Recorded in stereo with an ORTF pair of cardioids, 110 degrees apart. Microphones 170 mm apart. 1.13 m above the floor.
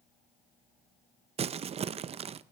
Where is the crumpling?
35° right, 0.6 m.